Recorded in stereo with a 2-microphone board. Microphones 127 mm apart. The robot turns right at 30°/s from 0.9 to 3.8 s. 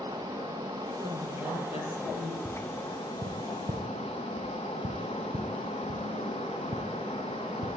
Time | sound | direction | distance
0.0 | running water | 25° right | 7.5 m
1.0 | a woman speaking | 35° left | 7 m
2.5 | tapping | 25° right (ahead or behind) | 6 m